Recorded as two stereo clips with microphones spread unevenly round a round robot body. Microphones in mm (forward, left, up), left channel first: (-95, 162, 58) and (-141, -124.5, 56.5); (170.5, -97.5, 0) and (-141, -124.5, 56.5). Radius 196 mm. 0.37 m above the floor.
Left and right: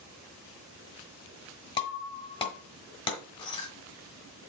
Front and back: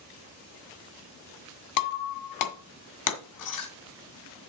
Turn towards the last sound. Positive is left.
turn(degrees=5)